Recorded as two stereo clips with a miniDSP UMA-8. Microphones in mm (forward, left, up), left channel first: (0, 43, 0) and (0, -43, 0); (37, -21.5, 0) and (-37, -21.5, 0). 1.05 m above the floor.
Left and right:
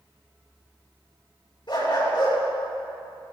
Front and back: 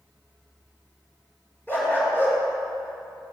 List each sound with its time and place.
1.7 s a dog barking: 60° left, 5.5 m